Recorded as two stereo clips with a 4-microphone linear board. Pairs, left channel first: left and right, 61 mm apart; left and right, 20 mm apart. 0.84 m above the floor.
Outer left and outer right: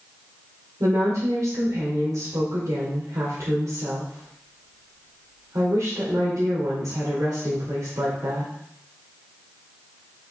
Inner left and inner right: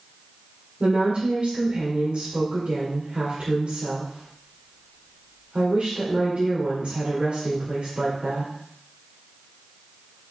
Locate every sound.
0.8 s a woman speaking: 75° right (ahead or behind), 2.5 m